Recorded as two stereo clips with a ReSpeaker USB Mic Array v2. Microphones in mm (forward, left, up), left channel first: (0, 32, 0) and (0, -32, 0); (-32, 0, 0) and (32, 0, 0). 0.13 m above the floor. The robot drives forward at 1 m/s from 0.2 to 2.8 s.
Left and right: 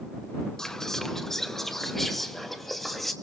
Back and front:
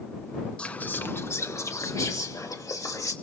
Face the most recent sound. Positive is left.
turn(degrees=175)